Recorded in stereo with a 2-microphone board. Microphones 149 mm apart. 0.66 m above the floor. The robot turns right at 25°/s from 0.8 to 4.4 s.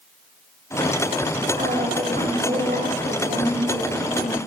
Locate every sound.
1.6 s a woman speaking: 110° right, 3.5 m; by 4.4 s 40° right, 3.5 m